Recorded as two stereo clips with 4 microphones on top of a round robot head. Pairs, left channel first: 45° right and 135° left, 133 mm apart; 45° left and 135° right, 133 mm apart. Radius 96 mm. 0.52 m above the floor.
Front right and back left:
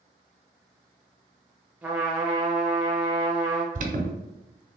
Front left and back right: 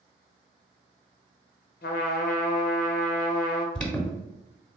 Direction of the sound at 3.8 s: 130° left.